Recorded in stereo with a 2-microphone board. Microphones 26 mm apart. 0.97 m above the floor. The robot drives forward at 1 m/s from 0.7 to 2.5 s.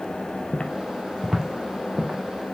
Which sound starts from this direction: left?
Footsteps, at 0.5 s.